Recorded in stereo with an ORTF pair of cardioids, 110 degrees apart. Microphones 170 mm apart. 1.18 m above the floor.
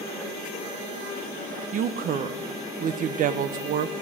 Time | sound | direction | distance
1.7 | a woman speaking | 55° right | 0.5 m